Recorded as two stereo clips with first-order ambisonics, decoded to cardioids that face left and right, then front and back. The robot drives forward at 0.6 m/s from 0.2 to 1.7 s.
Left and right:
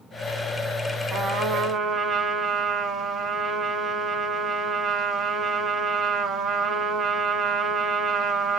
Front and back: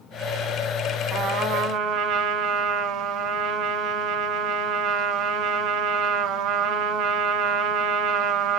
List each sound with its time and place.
1.1 s a trumpet: 155° right, 1.5 m; by 8.6 s 160° right, 1.8 m